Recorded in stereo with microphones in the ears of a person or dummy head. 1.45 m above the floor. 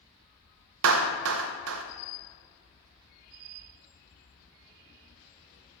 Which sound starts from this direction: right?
A clap, at 0.8 s.